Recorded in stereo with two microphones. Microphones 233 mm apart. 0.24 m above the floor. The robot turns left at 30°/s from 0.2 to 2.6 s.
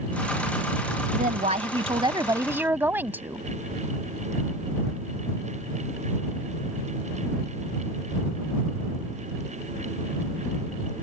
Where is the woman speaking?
125° right; by 3.5 s 165° right.